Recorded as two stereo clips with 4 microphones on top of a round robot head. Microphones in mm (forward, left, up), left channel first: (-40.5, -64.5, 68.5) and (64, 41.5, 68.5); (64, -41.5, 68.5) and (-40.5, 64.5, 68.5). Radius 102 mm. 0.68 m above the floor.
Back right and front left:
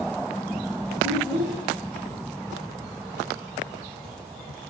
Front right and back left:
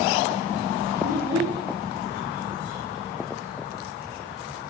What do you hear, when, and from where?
1.0 s a child speaking: 35° left, 5.5 m